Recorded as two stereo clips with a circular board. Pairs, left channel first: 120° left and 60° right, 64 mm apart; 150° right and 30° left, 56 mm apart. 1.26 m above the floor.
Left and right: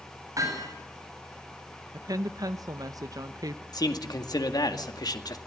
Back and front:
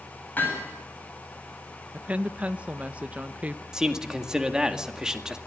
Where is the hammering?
90° right, 8.5 m.